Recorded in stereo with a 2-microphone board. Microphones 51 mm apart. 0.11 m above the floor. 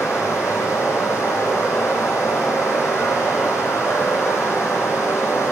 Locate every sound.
0.0 s running water: 75° left (ahead or behind), 1.6 m